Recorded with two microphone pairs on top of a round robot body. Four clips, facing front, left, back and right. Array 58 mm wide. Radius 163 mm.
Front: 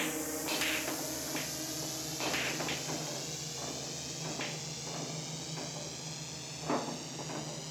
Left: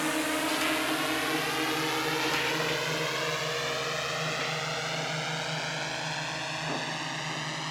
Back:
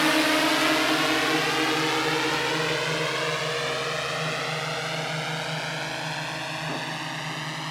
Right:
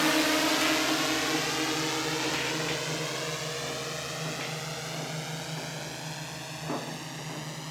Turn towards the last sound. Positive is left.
turn(degrees=150)